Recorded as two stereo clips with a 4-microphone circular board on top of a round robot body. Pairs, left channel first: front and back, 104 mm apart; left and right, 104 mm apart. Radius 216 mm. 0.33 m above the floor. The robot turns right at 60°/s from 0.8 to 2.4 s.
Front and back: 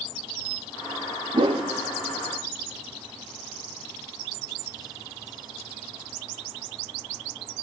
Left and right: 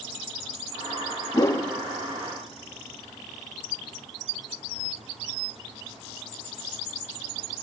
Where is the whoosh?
140° left, 0.8 m; by 1.7 s 160° left, 0.8 m.